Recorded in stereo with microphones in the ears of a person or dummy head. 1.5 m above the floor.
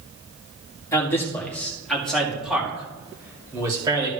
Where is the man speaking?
15° left (ahead or behind), 2.5 m; by 4.1 s 20° right (ahead or behind), 3 m.